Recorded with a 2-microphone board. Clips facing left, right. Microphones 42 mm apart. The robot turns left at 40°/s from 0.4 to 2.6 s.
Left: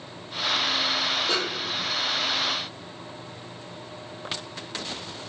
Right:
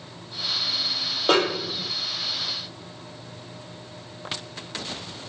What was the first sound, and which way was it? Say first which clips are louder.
A snare drum: right 6 dB; 65° right (ahead or behind).